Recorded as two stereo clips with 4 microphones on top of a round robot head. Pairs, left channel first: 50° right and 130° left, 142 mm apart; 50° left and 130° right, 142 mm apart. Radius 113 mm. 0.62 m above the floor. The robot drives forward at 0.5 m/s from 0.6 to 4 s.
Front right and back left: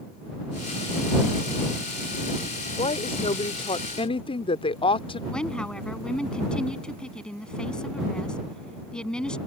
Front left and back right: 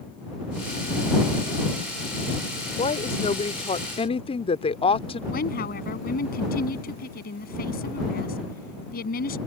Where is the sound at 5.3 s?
35° left.